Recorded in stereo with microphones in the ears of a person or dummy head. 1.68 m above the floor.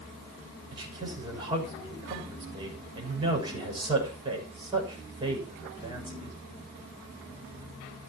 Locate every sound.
0.7 s a man speaking: 30° right (ahead or behind), 6 m